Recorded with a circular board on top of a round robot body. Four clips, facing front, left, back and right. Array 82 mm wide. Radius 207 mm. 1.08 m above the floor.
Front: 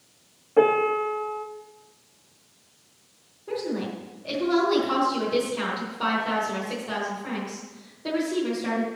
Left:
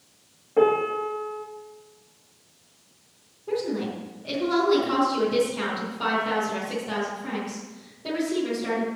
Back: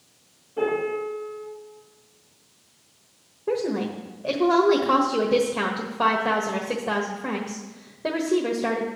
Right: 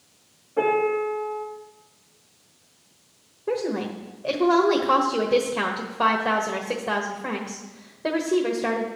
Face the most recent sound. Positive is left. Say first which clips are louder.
# right 1 dB, back 4 dB
turn(degrees=-140)